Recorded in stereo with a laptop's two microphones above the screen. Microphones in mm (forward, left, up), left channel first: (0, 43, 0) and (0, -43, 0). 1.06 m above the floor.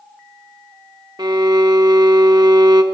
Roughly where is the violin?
Right.